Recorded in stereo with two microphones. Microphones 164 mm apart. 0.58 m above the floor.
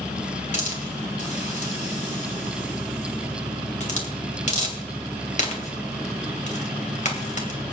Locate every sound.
0.5 s a hiss: 50° left (ahead or behind), 2.5 m